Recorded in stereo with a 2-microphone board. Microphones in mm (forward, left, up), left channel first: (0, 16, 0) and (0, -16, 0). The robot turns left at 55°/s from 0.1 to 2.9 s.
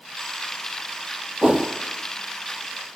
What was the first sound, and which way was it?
A whoosh, 20° right (ahead or behind).